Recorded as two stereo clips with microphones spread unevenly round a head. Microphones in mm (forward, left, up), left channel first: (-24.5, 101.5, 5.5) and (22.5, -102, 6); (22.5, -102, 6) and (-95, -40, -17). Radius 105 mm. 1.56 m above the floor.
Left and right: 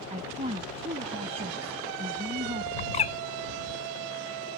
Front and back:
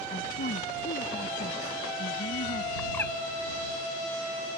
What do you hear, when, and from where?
0.1 s a woman speaking: 15° right
2.8 s a bird: 45° left